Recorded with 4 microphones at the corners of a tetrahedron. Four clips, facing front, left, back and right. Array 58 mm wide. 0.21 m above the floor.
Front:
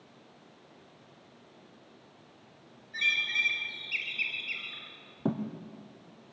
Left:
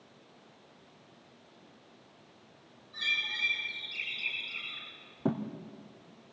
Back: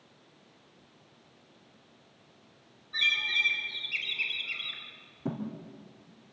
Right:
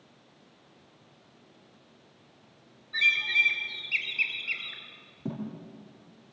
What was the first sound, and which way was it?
A bird, 85° right.